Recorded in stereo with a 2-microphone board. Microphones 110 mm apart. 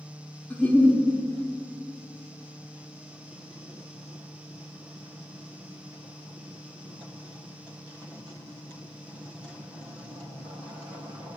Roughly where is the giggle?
Centre.